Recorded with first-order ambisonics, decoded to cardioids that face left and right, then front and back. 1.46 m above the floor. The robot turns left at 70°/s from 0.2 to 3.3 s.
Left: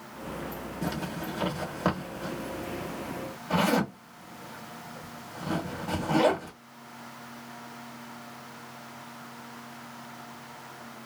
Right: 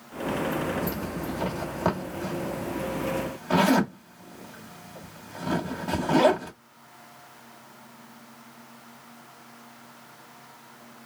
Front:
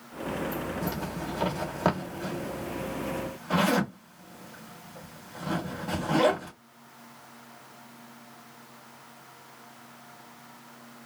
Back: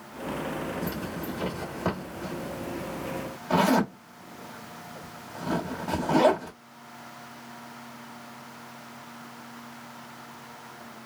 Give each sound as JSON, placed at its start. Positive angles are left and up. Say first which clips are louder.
{"t": 0.8, "sound": "a zipper", "louder": "right 2 dB, even", "azimuth_deg": 75, "distance_m": 1.2}